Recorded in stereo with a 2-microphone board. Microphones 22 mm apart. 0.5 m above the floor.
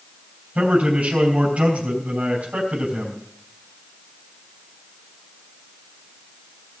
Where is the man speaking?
70° right (ahead or behind), 4.5 m.